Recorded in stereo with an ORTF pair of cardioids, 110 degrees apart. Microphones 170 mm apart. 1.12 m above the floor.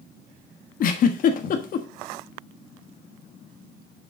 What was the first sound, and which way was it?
A giggle, 55° left.